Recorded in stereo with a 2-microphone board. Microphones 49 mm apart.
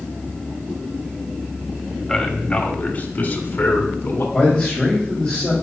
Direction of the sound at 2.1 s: 5° left (ahead or behind).